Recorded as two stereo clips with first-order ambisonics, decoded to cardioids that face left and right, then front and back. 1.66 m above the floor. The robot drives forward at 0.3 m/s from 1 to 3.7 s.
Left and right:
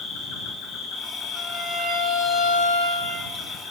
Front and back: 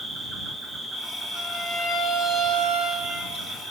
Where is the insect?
90° left, 1.1 m; by 3.7 s 135° left, 1.3 m.